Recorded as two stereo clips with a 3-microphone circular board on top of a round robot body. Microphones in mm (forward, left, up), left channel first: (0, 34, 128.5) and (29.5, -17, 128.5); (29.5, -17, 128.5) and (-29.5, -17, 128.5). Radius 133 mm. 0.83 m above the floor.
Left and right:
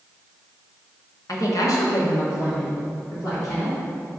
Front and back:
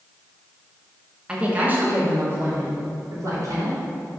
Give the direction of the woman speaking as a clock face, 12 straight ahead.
8 o'clock.